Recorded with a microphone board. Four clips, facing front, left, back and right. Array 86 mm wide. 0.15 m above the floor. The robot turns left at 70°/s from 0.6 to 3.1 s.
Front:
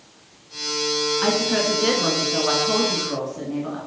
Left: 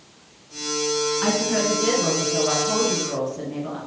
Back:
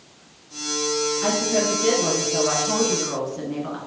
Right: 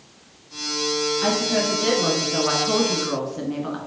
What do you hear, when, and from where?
1.2 s a woman speaking: 35° left, 1.7 m; by 3.8 s 100° right, 1.7 m